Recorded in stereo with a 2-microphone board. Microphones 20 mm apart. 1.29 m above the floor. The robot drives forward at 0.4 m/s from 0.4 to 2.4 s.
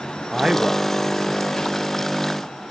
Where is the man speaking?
30° right (ahead or behind), 0.6 m.